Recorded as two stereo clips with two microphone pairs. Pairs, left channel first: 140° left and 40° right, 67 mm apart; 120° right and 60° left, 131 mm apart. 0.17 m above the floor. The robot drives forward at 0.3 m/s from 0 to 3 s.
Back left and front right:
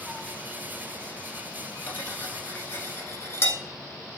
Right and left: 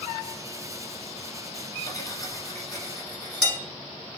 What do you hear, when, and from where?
1.9 s cutlery clinking: 170° right, 0.9 m; by 3.6 s 175° right, 1.1 m